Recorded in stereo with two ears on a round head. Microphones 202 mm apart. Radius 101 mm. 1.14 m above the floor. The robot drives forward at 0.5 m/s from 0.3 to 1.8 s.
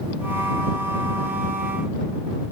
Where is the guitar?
No guitar in this recording.